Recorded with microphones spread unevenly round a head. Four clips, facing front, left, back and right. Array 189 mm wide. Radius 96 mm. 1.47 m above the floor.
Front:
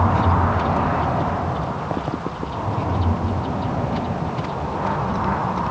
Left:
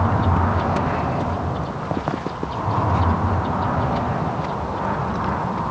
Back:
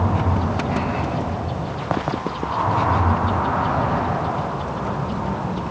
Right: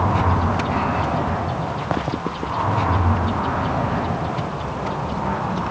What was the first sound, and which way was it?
Only background noise.